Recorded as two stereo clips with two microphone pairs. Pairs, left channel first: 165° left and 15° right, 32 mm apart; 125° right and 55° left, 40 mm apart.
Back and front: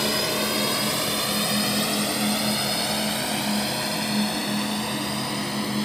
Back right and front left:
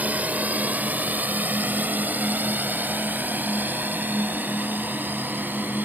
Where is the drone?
70° left; by 5.8 s 80° left.